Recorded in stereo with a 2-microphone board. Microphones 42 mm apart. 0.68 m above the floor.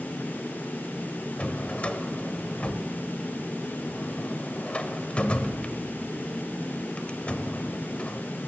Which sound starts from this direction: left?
A drawer, at 1.4 s.